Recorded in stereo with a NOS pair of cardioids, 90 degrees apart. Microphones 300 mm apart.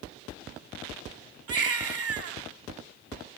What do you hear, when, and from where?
1.5 s a baby crying: 50° right, 6 m